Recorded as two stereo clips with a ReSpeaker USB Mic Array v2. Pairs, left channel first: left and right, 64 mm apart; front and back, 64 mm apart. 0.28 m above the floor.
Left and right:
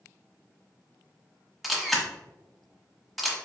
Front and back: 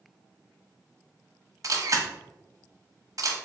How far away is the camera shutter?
About 0.6 m.